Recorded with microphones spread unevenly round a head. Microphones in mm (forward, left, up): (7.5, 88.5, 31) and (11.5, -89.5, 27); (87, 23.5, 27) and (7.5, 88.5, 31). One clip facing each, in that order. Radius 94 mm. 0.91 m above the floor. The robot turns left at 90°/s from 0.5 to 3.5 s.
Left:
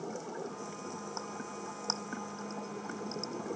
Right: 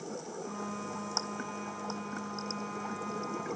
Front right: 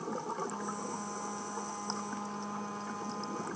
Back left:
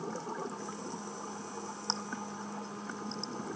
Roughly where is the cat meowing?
No cat meowing in this recording.